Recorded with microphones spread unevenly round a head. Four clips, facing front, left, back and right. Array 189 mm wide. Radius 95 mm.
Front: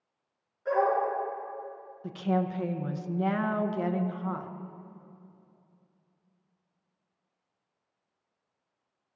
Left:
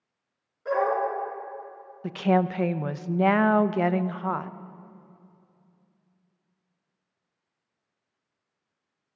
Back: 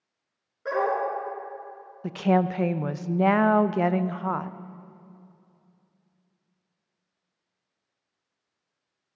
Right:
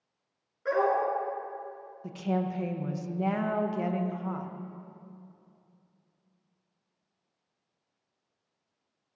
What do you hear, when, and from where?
0.7 s a dog barking: 175° right, 3.5 m
2.0 s a woman speaking: 155° left, 0.5 m